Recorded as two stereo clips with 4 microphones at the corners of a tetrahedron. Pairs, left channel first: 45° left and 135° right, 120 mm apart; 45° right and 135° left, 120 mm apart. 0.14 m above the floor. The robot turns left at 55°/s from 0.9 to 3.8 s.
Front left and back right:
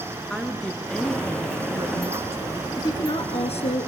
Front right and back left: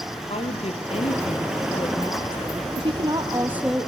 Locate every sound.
0.3 s a woman speaking: 35° right, 2.5 m; by 2.7 s 135° right, 2.5 m
2.8 s a woman speaking: 105° left, 2.5 m; by 3.9 s 45° left, 2.5 m